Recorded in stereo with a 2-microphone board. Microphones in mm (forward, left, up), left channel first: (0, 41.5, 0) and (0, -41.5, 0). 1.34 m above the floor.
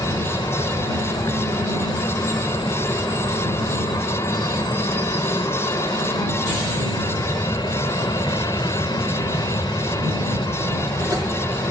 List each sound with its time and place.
0.0 s an aircraft: 60° left (ahead or behind)